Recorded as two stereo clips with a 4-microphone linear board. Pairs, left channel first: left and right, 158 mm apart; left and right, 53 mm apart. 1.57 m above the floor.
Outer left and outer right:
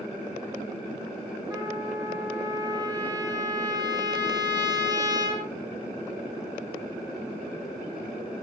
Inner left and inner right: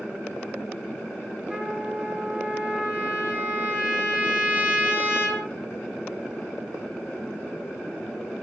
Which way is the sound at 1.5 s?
25° right (ahead or behind).